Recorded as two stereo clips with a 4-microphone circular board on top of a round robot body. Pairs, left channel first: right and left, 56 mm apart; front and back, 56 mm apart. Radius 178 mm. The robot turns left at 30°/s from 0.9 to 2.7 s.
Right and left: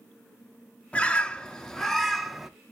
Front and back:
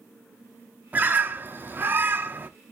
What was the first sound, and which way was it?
A bird, 145° right.